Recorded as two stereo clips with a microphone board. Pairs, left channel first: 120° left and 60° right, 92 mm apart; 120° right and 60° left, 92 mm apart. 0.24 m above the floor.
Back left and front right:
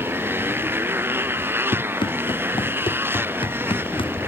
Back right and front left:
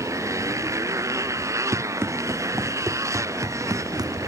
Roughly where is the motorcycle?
Ahead.